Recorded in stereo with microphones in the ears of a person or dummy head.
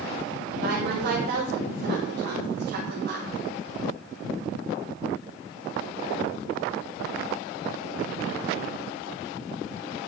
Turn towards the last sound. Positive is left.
turn(degrees=-60)  # may be behind; listen again after turning